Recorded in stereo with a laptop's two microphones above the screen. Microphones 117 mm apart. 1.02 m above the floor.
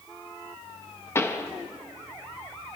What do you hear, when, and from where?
1.1 s a pop: 20° left (ahead or behind), 0.9 m